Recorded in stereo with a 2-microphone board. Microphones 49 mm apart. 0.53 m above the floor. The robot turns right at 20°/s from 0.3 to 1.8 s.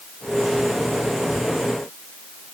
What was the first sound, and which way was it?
Only background noise.